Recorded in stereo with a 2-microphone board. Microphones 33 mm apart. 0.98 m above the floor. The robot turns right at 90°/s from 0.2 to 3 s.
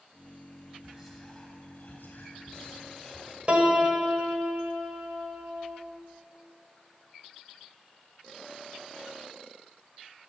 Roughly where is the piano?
Right.